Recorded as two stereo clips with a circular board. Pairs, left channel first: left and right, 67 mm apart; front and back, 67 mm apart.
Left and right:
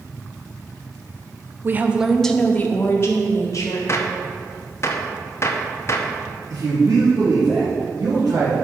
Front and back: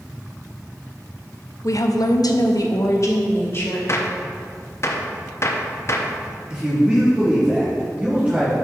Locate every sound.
1.6 s a woman speaking: 35° right, 0.6 m; by 3.8 s 50° left, 1.5 m
3.9 s a gunshot: 45° left, 0.6 m
6.5 s a man speaking: 115° right, 1.8 m